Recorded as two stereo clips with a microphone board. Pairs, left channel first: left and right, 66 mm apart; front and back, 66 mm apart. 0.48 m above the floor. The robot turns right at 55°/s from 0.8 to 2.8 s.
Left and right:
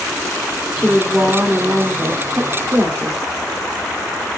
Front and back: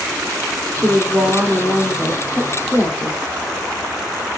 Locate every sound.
0.8 s a woman speaking: 165° right, 0.9 m; by 3.2 s 55° right, 0.9 m